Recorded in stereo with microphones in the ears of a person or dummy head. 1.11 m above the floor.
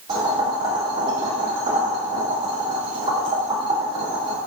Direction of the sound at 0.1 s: 20° right (ahead or behind).